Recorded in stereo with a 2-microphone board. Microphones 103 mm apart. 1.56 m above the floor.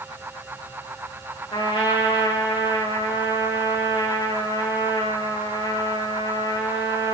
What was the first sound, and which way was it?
A trumpet, 60° left (ahead or behind).